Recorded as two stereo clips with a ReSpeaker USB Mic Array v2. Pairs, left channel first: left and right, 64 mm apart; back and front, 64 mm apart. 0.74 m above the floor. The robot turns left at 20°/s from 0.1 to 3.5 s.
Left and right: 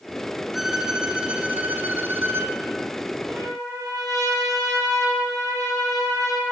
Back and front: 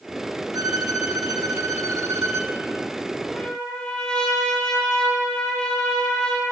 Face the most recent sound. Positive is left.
turn(degrees=-100)